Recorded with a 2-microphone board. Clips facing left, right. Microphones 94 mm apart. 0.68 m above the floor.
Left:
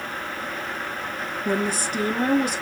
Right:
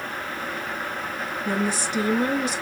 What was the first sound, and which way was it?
A woman speaking, 50° left (ahead or behind).